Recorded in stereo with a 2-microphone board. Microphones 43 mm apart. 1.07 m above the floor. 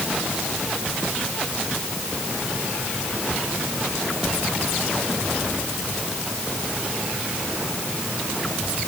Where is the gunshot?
I don't hear a gunshot.